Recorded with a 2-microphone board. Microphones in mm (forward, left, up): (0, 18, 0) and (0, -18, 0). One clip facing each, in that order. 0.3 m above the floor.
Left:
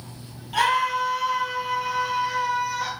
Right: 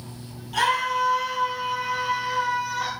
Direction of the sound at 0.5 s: 25° left (ahead or behind).